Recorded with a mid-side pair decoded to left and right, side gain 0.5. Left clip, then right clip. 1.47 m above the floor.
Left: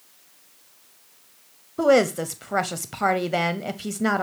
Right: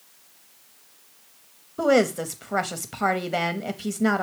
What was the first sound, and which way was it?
A woman speaking, 10° left.